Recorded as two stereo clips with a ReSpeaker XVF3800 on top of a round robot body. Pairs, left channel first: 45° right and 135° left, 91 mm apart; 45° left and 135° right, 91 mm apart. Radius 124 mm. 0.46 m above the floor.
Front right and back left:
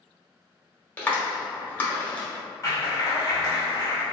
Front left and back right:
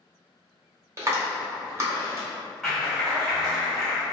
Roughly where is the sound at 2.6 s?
Ahead right.